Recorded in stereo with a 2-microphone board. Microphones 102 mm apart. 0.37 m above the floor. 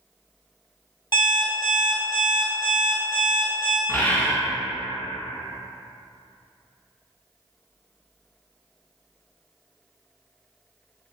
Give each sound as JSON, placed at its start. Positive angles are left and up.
{"t": 1.1, "sound": "an alarm clock", "side_deg": 50, "distance_m": 0.9}
{"t": 3.9, "sound": "a bird", "side_deg": 20, "distance_m": 0.5}